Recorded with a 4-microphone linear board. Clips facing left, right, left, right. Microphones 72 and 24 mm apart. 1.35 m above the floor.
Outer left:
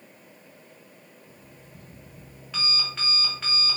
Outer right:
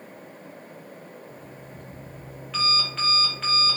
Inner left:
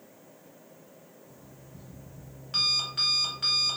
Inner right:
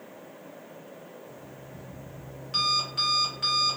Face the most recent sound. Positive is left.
turn(degrees=0)  # may be behind; listen again after turning